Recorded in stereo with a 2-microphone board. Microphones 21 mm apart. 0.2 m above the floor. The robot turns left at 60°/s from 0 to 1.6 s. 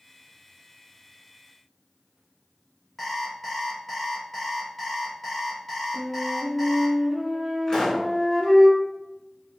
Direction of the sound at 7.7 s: 30° left (ahead or behind).